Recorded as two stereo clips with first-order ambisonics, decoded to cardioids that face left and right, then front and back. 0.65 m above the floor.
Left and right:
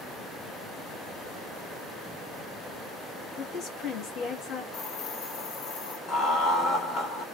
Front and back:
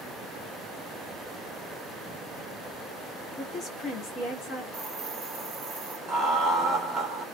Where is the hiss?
115° left, 1.4 m.